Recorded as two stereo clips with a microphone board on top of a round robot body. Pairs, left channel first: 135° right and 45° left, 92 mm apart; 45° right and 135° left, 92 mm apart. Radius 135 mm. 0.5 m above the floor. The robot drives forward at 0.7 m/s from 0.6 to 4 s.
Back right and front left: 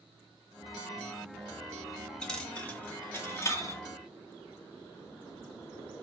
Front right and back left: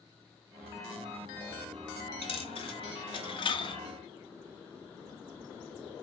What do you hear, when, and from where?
2.2 s a dropped coin: 55° right, 2.5 m; by 3.8 s 80° right, 1.9 m